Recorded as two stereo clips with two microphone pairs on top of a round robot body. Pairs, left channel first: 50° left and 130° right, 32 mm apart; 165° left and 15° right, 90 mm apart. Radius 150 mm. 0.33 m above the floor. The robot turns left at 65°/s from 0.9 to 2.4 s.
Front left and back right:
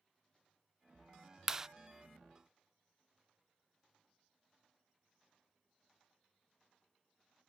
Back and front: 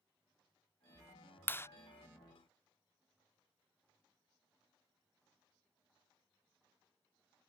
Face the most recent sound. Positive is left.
turn(degrees=160)